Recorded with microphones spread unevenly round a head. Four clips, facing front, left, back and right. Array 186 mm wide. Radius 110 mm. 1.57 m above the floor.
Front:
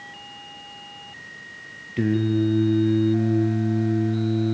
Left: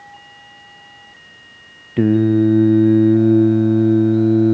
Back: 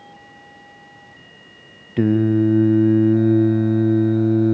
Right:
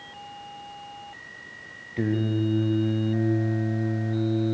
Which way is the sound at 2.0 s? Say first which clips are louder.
Left 12 dB, back 5 dB; 90° left.